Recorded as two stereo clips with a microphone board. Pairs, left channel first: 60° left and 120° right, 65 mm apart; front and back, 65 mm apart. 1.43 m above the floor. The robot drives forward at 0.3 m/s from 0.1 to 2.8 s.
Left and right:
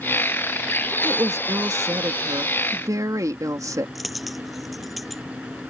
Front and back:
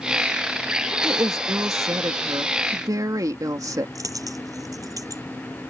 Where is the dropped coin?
150° left.